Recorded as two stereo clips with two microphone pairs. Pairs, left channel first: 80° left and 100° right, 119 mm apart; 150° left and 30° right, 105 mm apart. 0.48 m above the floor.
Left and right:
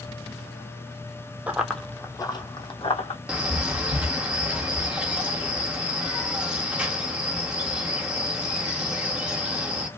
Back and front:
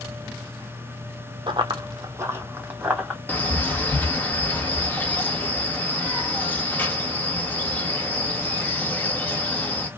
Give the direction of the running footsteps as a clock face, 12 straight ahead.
1 o'clock.